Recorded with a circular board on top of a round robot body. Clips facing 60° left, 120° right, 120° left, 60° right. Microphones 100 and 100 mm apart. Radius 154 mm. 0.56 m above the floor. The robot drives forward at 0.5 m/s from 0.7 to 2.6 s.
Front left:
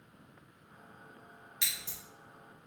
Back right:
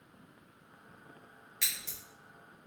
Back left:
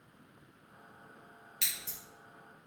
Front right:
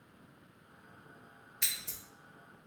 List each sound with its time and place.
1.6 s scissors: 130° left, 0.9 m; by 2.0 s 140° left, 1.0 m